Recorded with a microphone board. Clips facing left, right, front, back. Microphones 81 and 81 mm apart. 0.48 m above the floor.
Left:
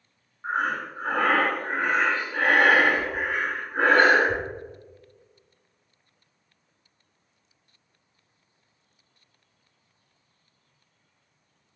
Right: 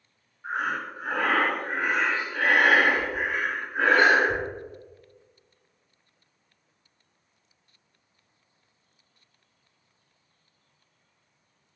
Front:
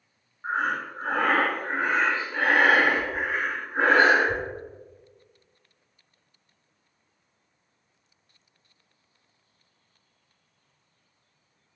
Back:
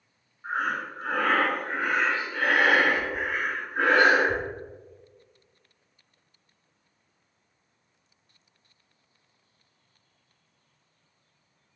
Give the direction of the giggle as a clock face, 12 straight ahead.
I don't hear a giggle.